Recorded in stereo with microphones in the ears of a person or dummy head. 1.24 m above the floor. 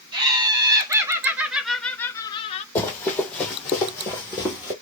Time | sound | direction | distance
0.1 | laughter | 20° right (ahead or behind) | 1.8 m
2.8 | running footsteps | 10° left (ahead or behind) | 1.8 m